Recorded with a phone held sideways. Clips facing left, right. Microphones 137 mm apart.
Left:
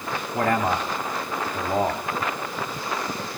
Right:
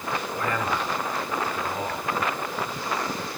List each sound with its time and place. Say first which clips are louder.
0.3 s a man speaking: left 7 dB; 70° left (ahead or behind), 3 m